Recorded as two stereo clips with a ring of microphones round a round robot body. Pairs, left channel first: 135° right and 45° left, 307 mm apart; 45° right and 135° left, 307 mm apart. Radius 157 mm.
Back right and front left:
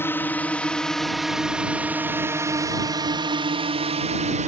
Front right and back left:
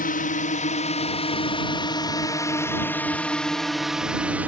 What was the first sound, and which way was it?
A drone, 60° right.